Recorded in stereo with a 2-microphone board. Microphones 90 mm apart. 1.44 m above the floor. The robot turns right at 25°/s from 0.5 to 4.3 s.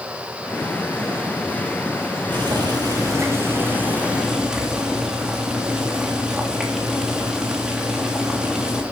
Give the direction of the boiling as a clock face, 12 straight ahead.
2 o'clock.